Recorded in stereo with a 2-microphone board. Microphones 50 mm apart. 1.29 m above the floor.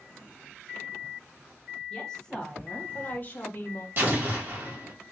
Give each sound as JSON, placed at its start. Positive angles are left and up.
{"t": 1.9, "sound": "a woman speaking", "side_deg": 10, "distance_m": 1.6}
{"t": 4.0, "sound": "an explosion", "side_deg": -40, "distance_m": 1.6}